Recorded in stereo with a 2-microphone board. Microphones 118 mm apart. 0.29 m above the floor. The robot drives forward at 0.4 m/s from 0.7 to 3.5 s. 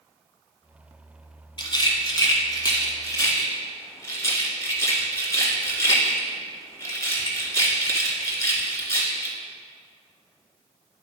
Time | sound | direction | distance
1.6 | a rattle | 40° left (ahead or behind) | 1.0 m